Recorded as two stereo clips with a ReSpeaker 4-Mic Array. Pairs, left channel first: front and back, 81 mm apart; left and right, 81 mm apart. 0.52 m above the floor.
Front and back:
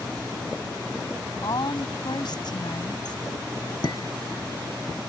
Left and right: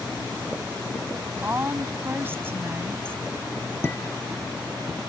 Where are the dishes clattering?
30° left.